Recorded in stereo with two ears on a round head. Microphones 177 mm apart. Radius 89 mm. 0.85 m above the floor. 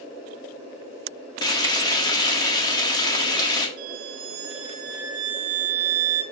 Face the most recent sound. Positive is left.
turn(degrees=-80)